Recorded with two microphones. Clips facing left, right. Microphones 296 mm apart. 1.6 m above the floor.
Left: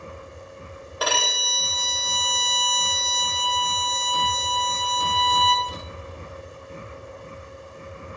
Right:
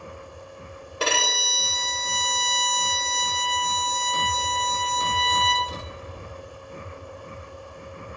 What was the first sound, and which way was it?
A violin, 30° right (ahead or behind).